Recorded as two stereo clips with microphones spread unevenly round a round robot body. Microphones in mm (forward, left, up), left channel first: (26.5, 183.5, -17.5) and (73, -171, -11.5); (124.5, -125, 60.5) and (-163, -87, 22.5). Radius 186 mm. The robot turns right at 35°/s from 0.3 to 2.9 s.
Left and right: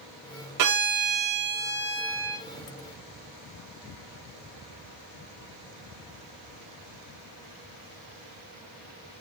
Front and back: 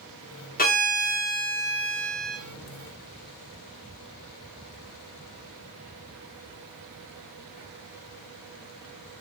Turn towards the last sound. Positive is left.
turn(degrees=25)